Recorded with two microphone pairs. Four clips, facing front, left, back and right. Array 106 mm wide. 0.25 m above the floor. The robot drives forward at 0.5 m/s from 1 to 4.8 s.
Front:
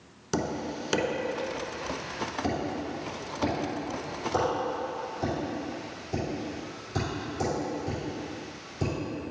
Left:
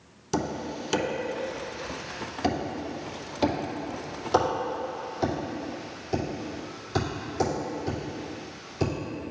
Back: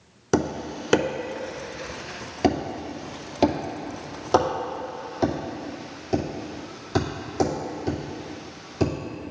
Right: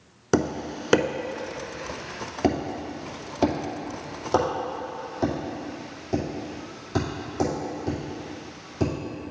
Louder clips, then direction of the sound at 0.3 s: Right 5 dB, back 6 dB; 120° right.